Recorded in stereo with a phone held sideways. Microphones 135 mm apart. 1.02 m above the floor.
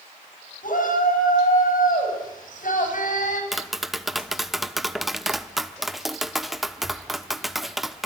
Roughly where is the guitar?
I don't hear a guitar.